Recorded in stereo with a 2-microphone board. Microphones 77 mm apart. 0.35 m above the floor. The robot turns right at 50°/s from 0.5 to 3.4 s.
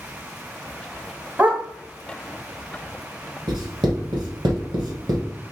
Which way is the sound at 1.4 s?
20° right (ahead or behind).